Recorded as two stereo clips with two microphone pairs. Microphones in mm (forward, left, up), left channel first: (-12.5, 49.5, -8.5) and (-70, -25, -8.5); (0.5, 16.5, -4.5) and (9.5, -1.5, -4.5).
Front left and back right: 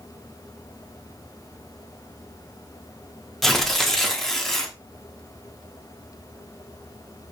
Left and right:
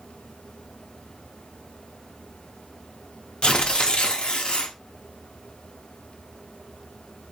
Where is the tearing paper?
140° left, 0.7 m.